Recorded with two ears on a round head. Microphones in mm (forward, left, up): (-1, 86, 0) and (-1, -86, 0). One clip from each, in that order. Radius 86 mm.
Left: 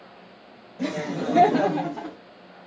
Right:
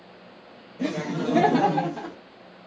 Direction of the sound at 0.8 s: 15° left (ahead or behind).